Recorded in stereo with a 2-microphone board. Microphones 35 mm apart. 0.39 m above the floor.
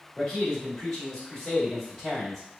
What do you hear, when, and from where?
0.2 s a man speaking: centre (ahead or behind), 1.6 m